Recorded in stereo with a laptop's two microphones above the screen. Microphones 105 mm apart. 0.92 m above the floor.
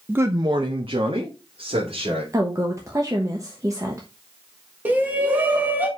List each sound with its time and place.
0.1 s a man speaking: 10° right (ahead or behind), 0.6 m; by 2.2 s 80° right, 3 m
2.3 s a woman speaking: 35° right (ahead or behind), 1.0 m
4.8 s a shout: 15° right (ahead or behind), 1.5 m